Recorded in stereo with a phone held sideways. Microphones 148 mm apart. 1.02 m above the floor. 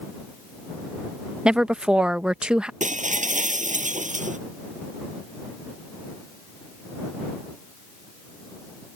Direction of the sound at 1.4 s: 5° right (ahead or behind).